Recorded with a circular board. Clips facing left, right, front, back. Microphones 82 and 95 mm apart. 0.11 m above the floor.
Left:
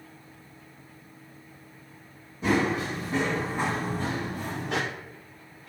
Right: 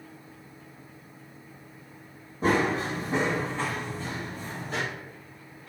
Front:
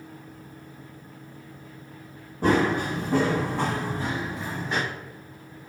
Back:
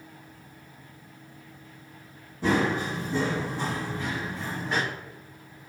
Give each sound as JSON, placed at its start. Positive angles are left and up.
{"t": 2.4, "sound": "running footsteps", "azimuth_deg": -40, "distance_m": 1.2}